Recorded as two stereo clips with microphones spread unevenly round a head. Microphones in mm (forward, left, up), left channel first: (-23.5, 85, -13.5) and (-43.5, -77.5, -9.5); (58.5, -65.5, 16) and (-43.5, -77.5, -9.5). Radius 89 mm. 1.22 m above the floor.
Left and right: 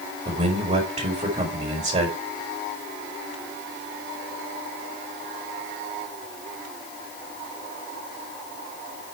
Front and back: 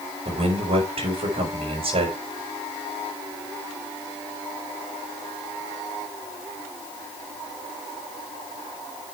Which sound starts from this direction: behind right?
A man speaking, at 0.2 s.